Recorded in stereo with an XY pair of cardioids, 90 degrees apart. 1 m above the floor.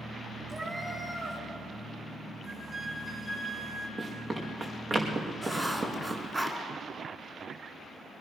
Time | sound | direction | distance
0.5 | a cat meowing | 25° right | 4.5 m
2.4 | a flute | 20° right | 4.5 m
4.0 | running footsteps | 45° right | 4.5 m
5.4 | writing | 25° right | 3.5 m